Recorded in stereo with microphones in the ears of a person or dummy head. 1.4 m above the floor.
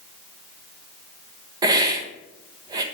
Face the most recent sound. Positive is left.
turn(degrees=-25)  # may be behind; listen again after turning